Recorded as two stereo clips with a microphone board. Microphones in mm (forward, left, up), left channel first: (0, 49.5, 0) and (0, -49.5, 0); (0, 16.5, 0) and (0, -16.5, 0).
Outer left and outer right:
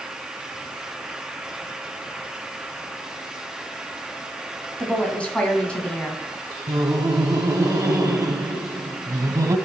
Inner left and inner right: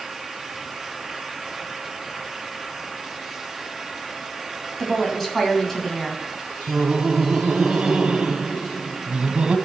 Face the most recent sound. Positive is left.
turn(degrees=-35)  # may be behind; listen again after turning